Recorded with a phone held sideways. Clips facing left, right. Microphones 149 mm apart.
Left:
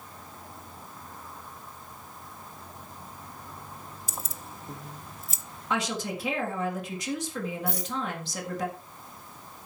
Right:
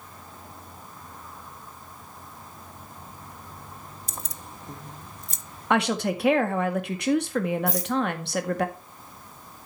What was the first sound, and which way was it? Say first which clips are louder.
Keys jangling: even; 5° left (ahead or behind).